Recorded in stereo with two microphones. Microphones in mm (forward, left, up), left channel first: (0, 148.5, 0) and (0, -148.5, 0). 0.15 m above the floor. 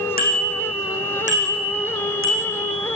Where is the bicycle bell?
30° left (ahead or behind), 6 m; by 2.6 s 50° left (ahead or behind), 6.5 m.